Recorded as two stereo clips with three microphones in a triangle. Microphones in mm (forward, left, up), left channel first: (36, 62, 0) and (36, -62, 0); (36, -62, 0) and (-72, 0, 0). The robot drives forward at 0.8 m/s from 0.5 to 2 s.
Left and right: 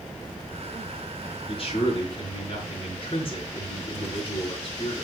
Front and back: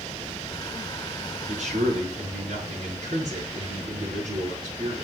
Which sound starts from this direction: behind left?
A man speaking, at 1.5 s.